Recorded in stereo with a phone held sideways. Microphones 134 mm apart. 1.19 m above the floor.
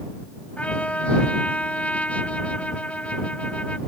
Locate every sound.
0.6 s a trumpet: 10° left (ahead or behind)